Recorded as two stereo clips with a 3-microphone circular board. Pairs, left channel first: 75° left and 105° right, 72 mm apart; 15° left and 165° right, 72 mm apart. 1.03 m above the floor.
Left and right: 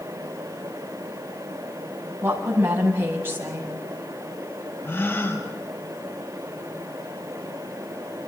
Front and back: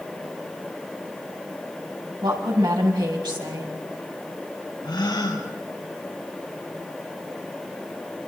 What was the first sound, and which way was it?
A woman speaking, 165° right.